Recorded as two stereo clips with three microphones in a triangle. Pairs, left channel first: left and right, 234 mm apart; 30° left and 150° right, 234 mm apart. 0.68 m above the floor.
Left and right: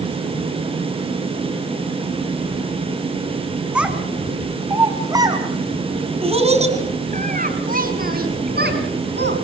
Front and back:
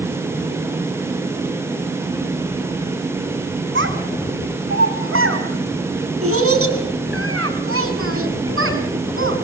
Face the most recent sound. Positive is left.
turn(degrees=-125)